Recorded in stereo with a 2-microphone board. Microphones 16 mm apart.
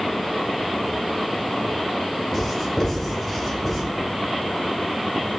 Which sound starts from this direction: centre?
Writing, at 2.3 s.